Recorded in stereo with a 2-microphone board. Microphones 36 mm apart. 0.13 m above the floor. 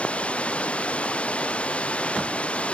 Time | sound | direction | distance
0.0 | running water | 35° left (ahead or behind) | ?